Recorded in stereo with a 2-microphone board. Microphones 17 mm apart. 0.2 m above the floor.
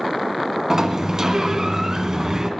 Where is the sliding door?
35° right (ahead or behind), 1.5 m.